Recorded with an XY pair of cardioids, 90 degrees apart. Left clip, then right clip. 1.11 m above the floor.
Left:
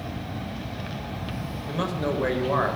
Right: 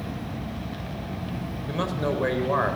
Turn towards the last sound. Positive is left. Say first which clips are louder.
# even
turn(degrees=-10)